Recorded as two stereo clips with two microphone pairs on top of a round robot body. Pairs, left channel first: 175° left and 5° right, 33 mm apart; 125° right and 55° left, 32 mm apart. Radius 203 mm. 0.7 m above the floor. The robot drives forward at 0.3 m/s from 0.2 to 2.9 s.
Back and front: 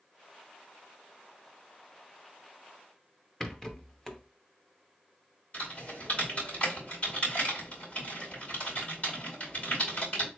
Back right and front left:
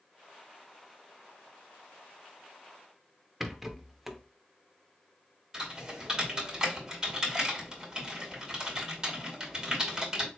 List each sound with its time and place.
3.4 s a rattle: 135° left, 1.0 m
5.5 s typing on a keyboard: 120° left, 2.5 m